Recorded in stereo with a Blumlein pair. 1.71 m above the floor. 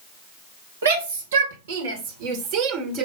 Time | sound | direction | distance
0.8 | a shout | 70° right | 2.5 m